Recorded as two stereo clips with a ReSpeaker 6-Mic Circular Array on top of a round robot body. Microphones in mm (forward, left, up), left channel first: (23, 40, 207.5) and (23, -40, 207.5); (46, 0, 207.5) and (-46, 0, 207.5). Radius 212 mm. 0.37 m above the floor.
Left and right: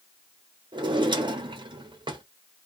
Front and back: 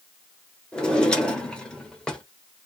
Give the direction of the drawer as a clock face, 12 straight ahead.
3 o'clock.